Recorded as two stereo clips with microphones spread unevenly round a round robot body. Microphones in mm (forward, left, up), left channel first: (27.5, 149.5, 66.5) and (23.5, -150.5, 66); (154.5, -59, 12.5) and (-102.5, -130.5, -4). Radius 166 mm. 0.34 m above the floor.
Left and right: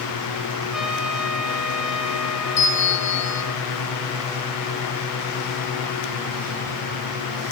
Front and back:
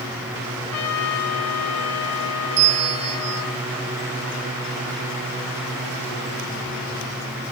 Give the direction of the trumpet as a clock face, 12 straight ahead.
12 o'clock.